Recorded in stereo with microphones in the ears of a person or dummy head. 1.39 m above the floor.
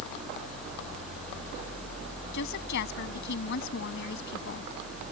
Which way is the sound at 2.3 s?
60° left (ahead or behind).